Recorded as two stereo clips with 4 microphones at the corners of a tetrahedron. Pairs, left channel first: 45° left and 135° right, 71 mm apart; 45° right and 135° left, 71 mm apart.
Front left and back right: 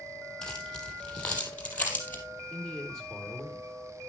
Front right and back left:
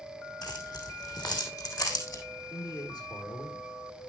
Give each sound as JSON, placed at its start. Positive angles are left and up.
{"t": 0.4, "sound": "keys jangling", "azimuth_deg": -30, "distance_m": 3.5}
{"t": 2.5, "sound": "a man speaking", "azimuth_deg": -30, "distance_m": 3.5}